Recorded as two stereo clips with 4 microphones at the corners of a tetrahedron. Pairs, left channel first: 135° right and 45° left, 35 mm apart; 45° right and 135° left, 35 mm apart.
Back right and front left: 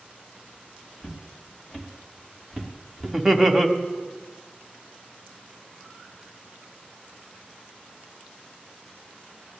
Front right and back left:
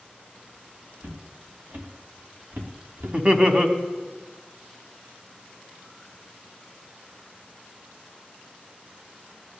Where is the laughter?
135° left, 1.2 m.